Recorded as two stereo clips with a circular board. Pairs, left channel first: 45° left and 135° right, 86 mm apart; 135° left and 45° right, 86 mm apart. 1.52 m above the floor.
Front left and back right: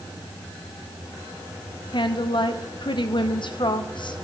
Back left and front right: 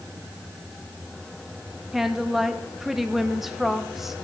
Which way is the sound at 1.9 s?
40° left.